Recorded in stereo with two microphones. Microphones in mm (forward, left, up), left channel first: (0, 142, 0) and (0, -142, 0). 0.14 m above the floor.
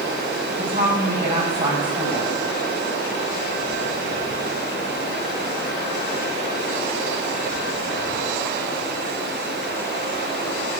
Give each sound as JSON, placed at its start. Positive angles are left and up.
{"t": 0.6, "sound": "a woman speaking", "side_deg": -30, "distance_m": 6.5}